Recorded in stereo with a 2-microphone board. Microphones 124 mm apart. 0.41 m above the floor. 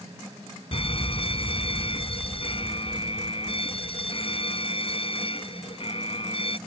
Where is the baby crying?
No baby crying in this recording.